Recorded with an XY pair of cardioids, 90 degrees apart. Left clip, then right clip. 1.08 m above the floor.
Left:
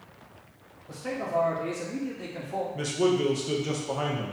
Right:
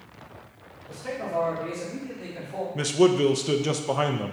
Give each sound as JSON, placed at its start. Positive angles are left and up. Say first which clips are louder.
{"t": 0.9, "sound": "a man speaking", "louder": "even", "azimuth_deg": 10, "distance_m": 2.0}
{"t": 2.8, "sound": "a man speaking", "louder": "right 6 dB", "azimuth_deg": -55, "distance_m": 0.5}